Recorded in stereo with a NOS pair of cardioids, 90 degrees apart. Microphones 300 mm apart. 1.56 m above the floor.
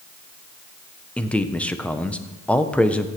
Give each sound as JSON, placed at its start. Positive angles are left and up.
{"t": 1.2, "sound": "a man speaking", "azimuth_deg": 5, "distance_m": 1.2}